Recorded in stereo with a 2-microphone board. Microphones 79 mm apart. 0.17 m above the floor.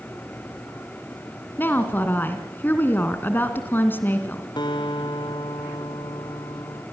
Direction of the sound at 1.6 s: 25° left (ahead or behind).